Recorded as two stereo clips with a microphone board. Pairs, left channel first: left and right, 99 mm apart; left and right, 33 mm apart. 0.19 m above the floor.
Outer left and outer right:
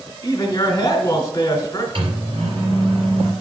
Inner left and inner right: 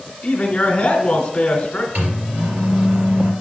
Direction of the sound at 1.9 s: 60° right (ahead or behind).